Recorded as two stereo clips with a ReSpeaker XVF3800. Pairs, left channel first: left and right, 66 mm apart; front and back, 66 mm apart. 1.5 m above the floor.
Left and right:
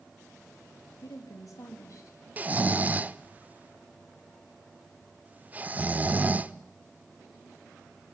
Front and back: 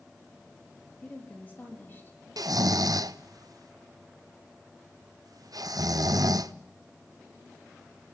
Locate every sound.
1.0 s a woman speaking: 70° left, 3 m; by 2.2 s 55° left, 3.5 m
2.4 s snoring: 155° right, 0.6 m